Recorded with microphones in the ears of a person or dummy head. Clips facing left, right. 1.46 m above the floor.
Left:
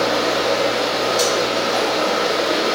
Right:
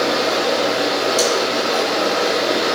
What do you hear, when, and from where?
0.0 s running water: 35° right (ahead or behind), 0.9 m
1.2 s cutlery clinking: 50° right (ahead or behind), 1.5 m